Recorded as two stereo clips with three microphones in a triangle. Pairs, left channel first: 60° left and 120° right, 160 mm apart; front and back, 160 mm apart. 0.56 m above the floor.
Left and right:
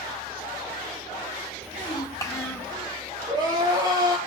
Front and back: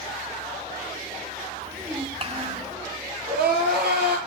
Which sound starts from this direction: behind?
Crying, at 3.3 s.